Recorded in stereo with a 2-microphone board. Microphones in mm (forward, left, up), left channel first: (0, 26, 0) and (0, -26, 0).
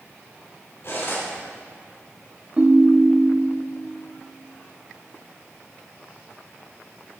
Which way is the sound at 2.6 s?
25° right (ahead or behind).